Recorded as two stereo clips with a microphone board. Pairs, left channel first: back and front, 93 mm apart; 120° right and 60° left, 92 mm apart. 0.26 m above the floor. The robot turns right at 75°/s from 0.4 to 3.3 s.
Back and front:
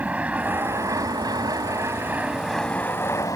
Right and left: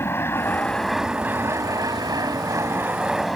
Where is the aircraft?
70° right; by 3.4 s 150° left.